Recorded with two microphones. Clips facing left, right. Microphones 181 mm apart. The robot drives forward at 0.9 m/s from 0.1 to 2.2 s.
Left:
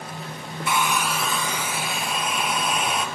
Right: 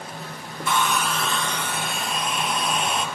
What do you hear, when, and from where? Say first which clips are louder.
0.7 s a hair dryer: right 1 dB; 10° left (ahead or behind), 0.7 m; by 3.0 s 5° left (ahead or behind), 1.7 m